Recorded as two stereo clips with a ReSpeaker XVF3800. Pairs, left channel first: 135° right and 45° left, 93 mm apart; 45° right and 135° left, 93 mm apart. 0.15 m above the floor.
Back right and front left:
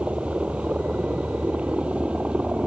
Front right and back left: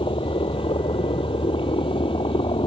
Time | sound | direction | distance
0.0 | a helicopter | 30° right | ?